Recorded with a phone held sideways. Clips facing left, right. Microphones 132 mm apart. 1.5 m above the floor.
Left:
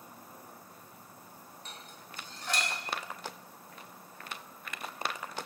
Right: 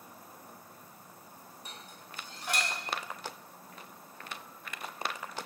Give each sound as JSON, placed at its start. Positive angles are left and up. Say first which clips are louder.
{"t": 1.6, "sound": "dishes clattering", "louder": "even", "side_deg": -10, "distance_m": 0.7}